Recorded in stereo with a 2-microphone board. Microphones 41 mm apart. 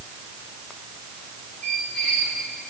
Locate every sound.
1.6 s a squeak: 25° left (ahead or behind), 9.5 m